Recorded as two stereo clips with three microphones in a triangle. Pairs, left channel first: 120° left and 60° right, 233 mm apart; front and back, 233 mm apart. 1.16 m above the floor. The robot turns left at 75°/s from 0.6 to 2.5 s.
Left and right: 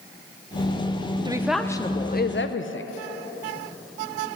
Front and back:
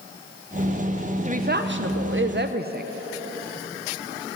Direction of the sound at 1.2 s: 130° right.